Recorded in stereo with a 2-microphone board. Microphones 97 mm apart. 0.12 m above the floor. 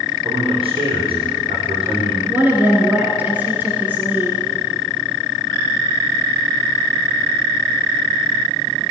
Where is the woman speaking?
20° right (ahead or behind), 1.6 m.